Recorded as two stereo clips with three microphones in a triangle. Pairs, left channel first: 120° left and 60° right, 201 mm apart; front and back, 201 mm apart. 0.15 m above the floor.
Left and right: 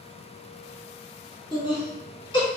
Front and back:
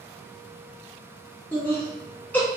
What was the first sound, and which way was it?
Laughter, 75° left.